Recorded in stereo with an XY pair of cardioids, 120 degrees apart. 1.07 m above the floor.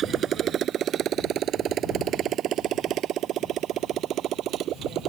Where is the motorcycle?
50° right; by 5.1 s 65° right.